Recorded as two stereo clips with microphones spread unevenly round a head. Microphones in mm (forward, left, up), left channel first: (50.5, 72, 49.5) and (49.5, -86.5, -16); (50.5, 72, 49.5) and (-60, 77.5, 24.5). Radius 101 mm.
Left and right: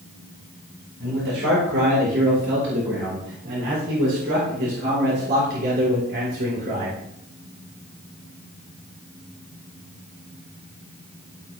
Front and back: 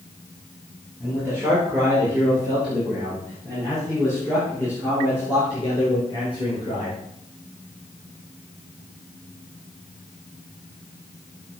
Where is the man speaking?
105° right, 6 m; by 7.0 s 60° right, 5.5 m.